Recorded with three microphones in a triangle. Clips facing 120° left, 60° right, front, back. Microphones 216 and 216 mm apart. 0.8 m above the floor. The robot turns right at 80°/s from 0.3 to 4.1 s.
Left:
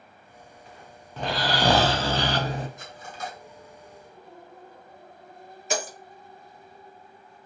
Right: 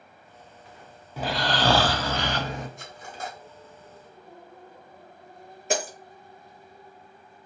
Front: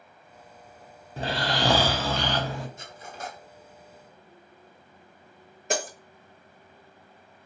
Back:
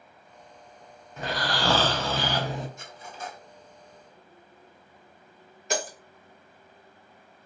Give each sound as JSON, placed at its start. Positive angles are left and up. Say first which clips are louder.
{"t": 1.2, "sound": "snoring", "louder": "even, front 2 dB", "azimuth_deg": 15, "distance_m": 0.5}
{"t": 2.8, "sound": "cutlery clinking", "louder": "even, front 1 dB", "azimuth_deg": -55, "distance_m": 1.5}
{"t": 5.7, "sound": "breaking glass", "louder": "right 2 dB, front 1 dB", "azimuth_deg": -35, "distance_m": 1.1}